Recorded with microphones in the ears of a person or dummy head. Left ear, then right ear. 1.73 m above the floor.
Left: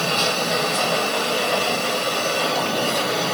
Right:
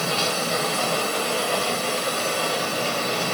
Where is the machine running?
10° left (ahead or behind).